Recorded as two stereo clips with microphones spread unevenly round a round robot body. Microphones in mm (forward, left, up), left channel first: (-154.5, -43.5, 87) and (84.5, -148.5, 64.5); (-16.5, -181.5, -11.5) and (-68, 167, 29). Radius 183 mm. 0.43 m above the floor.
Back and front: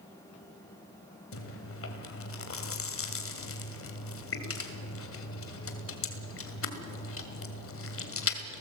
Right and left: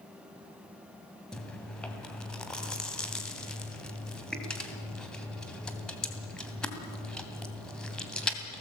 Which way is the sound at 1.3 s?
165° right.